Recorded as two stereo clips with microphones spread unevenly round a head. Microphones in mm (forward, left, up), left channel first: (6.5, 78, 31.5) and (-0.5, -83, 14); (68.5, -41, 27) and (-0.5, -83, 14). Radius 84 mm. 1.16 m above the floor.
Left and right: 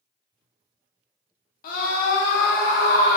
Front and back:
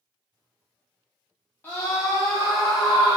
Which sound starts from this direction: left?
A scream, at 1.6 s.